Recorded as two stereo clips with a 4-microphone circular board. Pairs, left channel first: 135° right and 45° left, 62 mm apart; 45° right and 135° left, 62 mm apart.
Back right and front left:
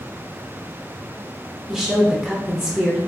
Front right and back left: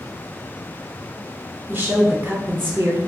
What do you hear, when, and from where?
1.7 s a woman speaking: 125° left, 0.8 m